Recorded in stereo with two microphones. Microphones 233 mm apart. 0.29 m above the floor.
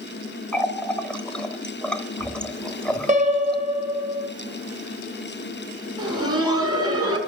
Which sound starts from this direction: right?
A piano, at 3.1 s.